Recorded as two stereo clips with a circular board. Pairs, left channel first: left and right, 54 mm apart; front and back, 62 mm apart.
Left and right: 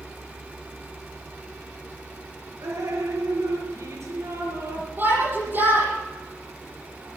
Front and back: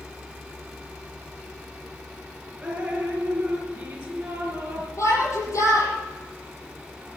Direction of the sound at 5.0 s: 40° right.